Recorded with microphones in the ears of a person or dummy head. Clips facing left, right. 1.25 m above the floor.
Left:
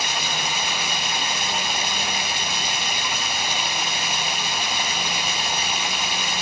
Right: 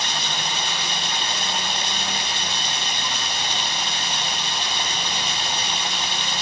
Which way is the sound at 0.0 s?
15° left (ahead or behind).